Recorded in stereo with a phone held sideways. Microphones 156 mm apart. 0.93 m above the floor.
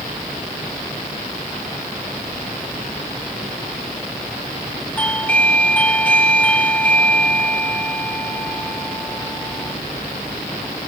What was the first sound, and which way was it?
A doorbell, 10° left (ahead or behind).